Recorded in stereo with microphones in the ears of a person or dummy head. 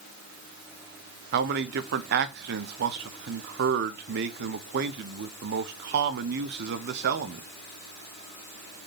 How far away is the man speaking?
About 0.6 m.